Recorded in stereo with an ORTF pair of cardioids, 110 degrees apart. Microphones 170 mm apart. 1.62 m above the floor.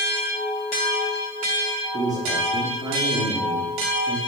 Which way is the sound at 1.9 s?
25° right.